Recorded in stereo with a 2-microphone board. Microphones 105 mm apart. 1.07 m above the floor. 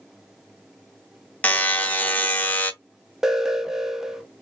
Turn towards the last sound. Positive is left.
turn(degrees=-5)  # may be behind; listen again after turning